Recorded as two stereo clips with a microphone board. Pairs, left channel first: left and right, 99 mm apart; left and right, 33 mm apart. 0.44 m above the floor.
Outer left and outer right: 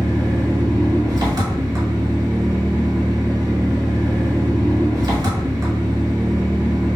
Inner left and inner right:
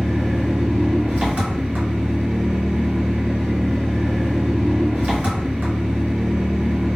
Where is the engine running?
40° right (ahead or behind), 1.2 m.